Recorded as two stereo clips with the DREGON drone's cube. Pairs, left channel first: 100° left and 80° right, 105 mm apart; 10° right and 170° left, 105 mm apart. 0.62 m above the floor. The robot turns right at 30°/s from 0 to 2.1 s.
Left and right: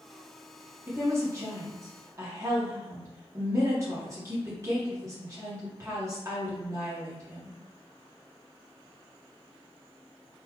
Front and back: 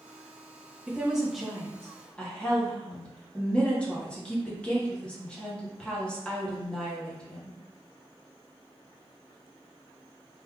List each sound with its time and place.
0.9 s a woman speaking: 120° right, 1.0 m; by 7.6 s 80° right, 1.0 m